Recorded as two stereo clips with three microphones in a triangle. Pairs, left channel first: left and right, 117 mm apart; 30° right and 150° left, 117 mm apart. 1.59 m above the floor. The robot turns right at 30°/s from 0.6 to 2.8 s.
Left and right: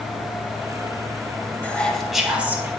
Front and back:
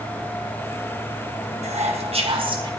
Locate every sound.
1.6 s whispering: 165° left, 1.9 m; by 2.7 s 160° right, 1.9 m